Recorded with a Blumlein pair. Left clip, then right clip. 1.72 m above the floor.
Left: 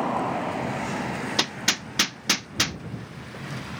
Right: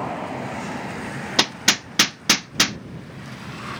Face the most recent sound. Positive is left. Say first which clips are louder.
# right 6 dB
turn(degrees=-15)